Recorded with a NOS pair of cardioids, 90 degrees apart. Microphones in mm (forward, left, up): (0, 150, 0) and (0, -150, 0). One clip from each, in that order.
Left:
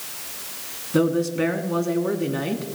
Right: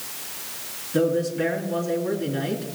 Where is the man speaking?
45° left, 2.5 m.